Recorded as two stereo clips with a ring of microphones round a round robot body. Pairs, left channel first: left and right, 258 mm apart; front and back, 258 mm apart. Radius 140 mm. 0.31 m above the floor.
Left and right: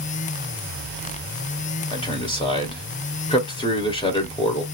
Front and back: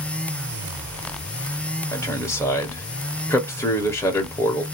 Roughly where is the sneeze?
I don't hear a sneeze.